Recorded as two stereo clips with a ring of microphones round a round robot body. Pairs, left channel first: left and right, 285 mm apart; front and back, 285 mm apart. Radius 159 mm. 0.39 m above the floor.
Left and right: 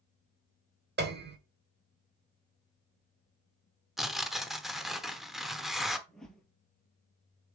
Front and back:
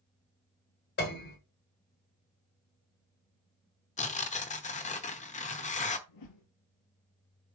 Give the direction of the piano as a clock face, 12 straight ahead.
2 o'clock.